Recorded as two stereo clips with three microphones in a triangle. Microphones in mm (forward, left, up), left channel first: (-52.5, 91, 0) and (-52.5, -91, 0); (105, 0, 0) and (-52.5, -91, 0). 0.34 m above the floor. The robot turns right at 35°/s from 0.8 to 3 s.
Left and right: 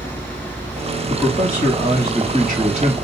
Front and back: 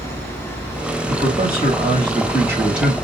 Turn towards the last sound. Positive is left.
turn(degrees=-60)